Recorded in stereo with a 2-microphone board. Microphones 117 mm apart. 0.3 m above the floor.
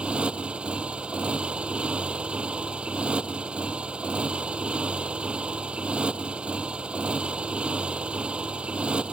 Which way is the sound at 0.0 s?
10° right (ahead or behind).